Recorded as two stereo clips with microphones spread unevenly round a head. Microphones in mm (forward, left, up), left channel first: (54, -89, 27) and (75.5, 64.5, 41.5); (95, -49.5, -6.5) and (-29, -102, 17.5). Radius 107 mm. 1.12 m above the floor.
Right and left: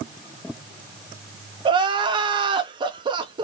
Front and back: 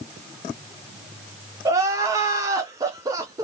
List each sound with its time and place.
1.6 s crying: 135° left, 0.5 m